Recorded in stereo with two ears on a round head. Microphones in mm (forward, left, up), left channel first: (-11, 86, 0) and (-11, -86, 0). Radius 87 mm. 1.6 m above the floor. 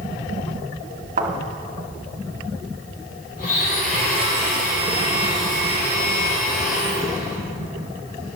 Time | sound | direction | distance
1.2 | a thud | 45° right (ahead or behind) | 1.8 m
3.4 | a blender | 50° left (ahead or behind) | 3.5 m